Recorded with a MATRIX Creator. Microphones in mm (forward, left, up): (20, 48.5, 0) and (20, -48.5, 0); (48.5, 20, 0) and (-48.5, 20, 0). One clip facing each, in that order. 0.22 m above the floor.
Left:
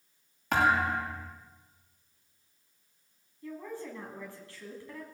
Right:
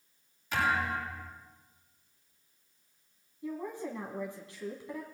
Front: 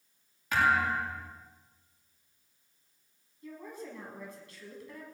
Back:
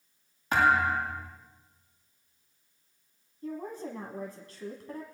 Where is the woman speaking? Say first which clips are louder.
Right 3 dB, back 6 dB; 155° right, 1.6 m.